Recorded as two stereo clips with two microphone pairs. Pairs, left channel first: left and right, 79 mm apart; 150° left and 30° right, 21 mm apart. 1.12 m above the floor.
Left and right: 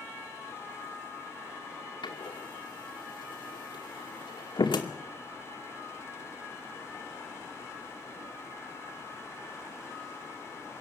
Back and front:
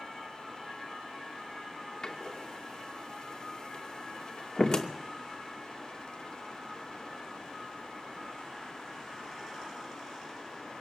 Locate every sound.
2.0 s a door slam: 95° left, 2.5 m